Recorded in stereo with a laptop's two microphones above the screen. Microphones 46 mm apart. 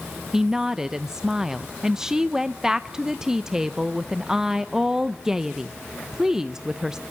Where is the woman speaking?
15° right (ahead or behind), 0.6 m.